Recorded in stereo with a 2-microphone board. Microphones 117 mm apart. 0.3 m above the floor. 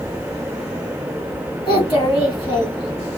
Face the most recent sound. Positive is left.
turn(degrees=40)  # may be behind; listen again after turning